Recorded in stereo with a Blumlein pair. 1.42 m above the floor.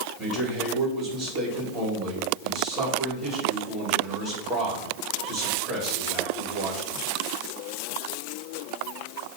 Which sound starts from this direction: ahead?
A man speaking, at 0.2 s.